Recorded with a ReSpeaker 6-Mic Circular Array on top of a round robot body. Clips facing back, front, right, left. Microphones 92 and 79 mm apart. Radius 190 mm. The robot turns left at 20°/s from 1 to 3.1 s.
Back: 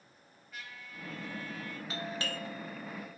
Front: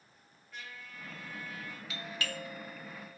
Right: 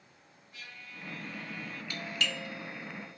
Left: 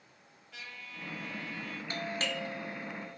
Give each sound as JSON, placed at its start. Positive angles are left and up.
{"t": 0.5, "sound": "a trumpet", "azimuth_deg": 90, "distance_m": 1.9}
{"t": 1.9, "sound": "a doorbell", "azimuth_deg": 135, "distance_m": 1.2}